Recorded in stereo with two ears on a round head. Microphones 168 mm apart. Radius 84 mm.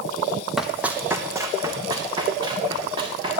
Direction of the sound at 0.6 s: Centre (ahead or behind).